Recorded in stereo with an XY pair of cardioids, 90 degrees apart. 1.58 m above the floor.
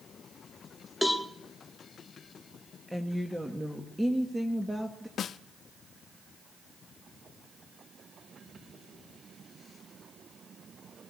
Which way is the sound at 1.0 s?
5° left.